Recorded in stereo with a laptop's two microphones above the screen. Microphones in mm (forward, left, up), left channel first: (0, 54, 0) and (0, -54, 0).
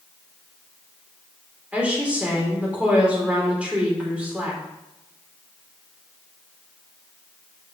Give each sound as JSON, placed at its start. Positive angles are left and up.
{"t": 1.7, "sound": "a woman speaking", "side_deg": -10, "distance_m": 3.0}